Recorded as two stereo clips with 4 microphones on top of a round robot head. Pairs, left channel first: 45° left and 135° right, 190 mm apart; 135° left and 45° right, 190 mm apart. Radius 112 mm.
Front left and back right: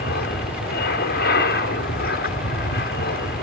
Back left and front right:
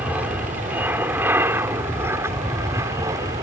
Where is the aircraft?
35° left; by 3.4 s 25° left.